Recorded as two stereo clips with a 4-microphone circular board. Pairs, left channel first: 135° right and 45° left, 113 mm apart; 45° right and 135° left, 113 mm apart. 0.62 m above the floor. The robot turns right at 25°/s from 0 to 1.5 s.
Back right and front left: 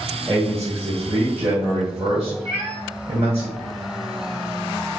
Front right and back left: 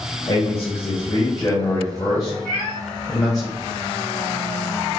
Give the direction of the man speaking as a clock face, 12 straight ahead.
1 o'clock.